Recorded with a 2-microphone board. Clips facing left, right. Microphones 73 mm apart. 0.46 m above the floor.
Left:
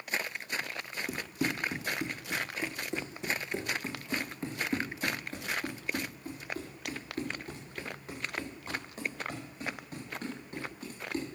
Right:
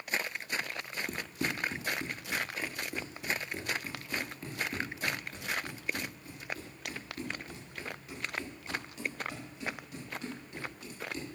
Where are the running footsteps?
5° left (ahead or behind), 1.5 m; by 11.2 s 40° left (ahead or behind), 6.5 m.